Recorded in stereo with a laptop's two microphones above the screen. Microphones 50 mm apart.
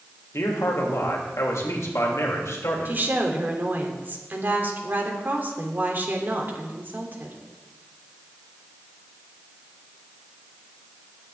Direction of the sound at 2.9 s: 40° right (ahead or behind).